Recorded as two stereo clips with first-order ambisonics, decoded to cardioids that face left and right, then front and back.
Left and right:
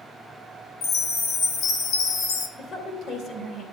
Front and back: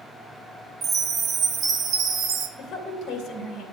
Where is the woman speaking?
45° left, 2.5 m.